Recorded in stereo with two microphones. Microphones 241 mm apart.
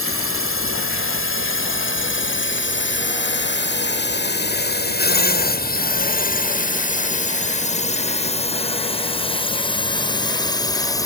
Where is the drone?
60° left (ahead or behind); by 11.1 s 15° left (ahead or behind).